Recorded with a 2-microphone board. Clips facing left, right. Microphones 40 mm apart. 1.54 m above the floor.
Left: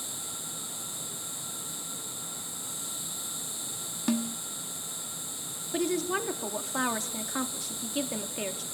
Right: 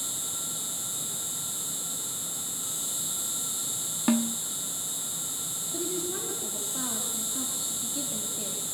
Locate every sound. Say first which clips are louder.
0.0 s an insect: right 3 dB; 75° right (ahead or behind), 6.5 m
4.1 s a snare drum: right 4 dB; 25° right (ahead or behind), 1.1 m
5.7 s a woman speaking: left 5 dB; 80° left, 4 m